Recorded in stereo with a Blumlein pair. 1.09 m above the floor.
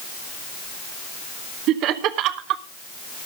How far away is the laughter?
About 1.3 m.